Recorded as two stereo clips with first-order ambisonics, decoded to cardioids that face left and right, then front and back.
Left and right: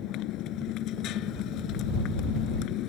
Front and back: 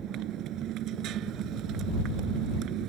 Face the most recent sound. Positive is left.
turn(degrees=135)